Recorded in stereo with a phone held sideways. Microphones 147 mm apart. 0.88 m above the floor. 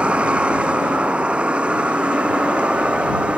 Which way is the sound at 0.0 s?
10° right (ahead or behind).